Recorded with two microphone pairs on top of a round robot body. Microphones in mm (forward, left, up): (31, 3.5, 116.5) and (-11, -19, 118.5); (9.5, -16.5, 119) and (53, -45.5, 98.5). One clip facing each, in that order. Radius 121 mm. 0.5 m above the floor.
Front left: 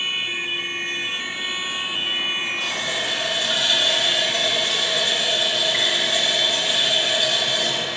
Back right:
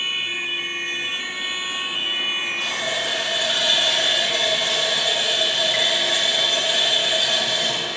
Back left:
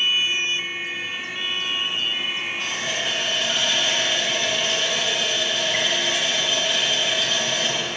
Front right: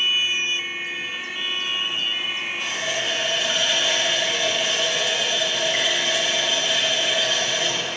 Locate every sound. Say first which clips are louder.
2.6 s a running tap: back right 1 dB, front right 2 dB; 110° right, 2 m